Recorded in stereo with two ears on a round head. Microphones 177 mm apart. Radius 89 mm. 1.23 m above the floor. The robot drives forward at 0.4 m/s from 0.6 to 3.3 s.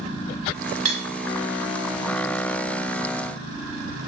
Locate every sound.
0.8 s cutlery clinking: 35° right (ahead or behind), 1.2 m; by 1.0 s 30° right (ahead or behind), 1.2 m